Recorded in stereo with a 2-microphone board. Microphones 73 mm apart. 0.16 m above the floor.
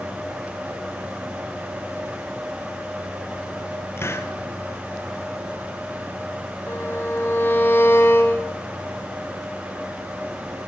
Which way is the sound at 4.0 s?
35° left (ahead or behind).